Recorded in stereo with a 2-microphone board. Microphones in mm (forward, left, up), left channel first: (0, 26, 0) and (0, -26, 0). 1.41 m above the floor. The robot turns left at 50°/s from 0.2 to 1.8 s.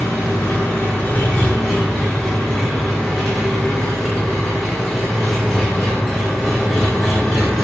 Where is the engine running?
85° left, 2.0 m; by 7.6 s 5° left, 2.0 m.